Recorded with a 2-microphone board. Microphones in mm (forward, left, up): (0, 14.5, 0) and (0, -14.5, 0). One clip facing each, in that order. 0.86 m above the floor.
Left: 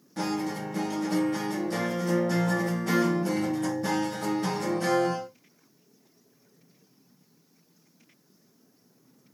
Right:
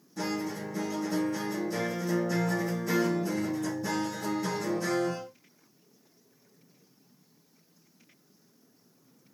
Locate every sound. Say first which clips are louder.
0.2 s a guitar: left 3 dB; 70° left (ahead or behind), 1.4 m